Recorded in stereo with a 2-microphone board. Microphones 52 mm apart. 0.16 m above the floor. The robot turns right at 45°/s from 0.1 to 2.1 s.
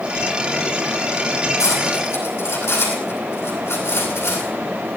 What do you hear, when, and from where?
1.6 s cutlery clinking: 75° left (ahead or behind), 4.5 m; by 4.5 s 60° left (ahead or behind), 4.5 m